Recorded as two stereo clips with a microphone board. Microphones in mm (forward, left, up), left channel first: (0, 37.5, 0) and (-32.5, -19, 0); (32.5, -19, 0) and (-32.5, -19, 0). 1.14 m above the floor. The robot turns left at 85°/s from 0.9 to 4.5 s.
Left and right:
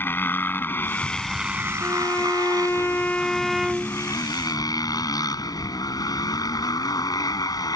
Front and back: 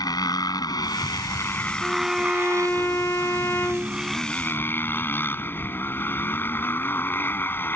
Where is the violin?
115° left; by 4.2 s 85° right.